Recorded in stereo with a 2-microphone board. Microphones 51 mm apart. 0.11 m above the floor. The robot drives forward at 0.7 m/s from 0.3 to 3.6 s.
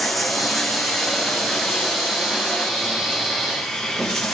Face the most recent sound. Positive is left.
turn(degrees=0)  # may be behind; listen again after turning